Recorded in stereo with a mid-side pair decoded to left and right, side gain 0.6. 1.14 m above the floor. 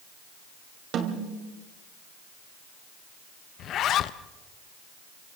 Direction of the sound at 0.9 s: 55° right.